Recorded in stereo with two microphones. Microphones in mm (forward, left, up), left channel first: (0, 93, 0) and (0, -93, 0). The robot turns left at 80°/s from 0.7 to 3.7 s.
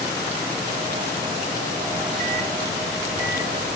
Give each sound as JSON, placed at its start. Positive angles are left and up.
{"t": 1.9, "sound": "a microwave", "side_deg": -40, "distance_m": 1.7}